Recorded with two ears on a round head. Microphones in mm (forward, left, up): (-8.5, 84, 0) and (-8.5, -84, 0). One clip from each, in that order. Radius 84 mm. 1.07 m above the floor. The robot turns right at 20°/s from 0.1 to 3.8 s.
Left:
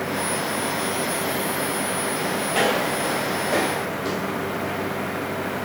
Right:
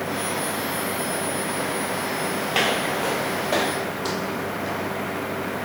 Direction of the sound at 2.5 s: 45° right (ahead or behind).